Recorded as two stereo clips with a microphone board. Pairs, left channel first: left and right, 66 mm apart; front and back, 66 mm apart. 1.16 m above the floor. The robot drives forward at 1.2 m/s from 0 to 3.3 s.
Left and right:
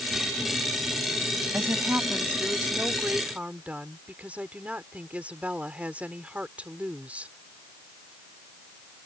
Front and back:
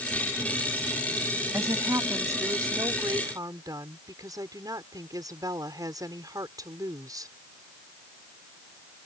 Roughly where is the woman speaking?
Behind right.